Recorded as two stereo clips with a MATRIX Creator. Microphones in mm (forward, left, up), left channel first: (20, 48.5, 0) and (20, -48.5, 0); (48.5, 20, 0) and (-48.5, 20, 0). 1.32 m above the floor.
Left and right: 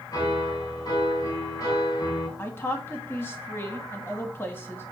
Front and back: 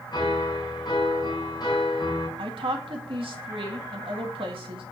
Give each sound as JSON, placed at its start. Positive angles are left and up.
{"t": 0.1, "sound": "a piano", "azimuth_deg": 35, "distance_m": 3.5}
{"t": 2.4, "sound": "a woman speaking", "azimuth_deg": 155, "distance_m": 1.8}